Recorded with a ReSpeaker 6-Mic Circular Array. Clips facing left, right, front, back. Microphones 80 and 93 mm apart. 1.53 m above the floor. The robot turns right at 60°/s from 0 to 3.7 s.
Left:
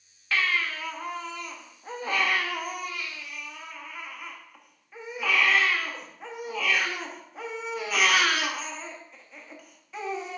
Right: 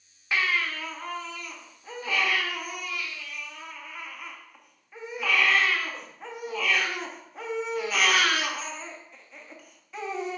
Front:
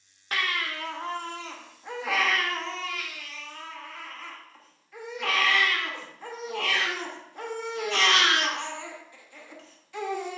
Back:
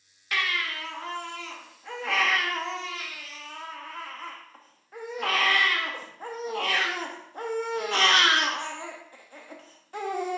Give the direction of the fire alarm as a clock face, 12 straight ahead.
No fire alarm in this recording.